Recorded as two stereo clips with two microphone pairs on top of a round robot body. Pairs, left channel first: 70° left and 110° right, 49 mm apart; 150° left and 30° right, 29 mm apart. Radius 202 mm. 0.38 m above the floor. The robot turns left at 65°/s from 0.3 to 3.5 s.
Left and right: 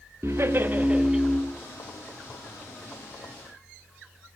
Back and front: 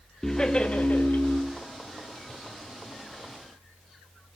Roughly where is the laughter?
Behind right.